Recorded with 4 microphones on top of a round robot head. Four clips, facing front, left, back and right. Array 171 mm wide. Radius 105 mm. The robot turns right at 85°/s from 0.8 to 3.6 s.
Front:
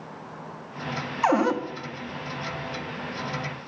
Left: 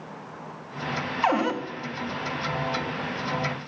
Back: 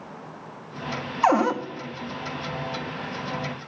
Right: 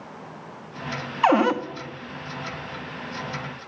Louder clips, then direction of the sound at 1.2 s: Right 5 dB, back 2 dB; 135° right.